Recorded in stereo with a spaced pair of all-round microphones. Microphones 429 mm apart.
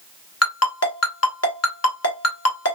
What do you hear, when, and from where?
0.4 s a ringtone: 35° left (ahead or behind), 1.3 m